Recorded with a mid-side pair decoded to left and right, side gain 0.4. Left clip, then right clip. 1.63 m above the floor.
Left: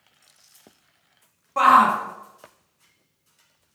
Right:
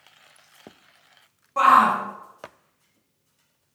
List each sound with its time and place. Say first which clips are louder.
1.6 s a shout: left 1 dB; 25° left, 1.0 m